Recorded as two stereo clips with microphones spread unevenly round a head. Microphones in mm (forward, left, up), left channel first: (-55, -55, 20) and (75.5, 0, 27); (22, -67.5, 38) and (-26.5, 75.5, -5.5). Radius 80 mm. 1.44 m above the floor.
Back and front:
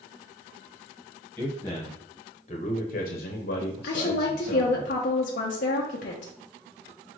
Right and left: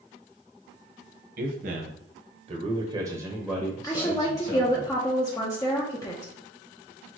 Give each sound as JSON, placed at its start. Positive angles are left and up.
{"t": 1.4, "sound": "a man speaking", "azimuth_deg": 125, "distance_m": 1.3}
{"t": 3.8, "sound": "a woman speaking", "azimuth_deg": -130, "distance_m": 0.7}